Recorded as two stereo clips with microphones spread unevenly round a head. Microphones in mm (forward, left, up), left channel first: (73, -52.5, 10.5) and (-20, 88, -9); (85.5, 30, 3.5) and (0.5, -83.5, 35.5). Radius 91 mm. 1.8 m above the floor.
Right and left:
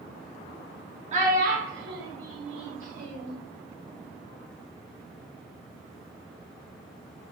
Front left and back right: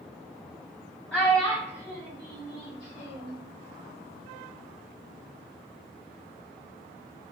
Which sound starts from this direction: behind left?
A child speaking, at 1.1 s.